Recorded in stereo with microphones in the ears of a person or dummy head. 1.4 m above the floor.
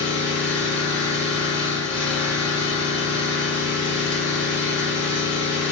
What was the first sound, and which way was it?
An engine running, 10° left (ahead or behind).